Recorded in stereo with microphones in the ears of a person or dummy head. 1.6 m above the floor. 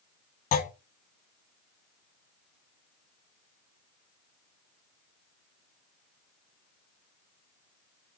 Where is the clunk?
40° left (ahead or behind), 0.6 m.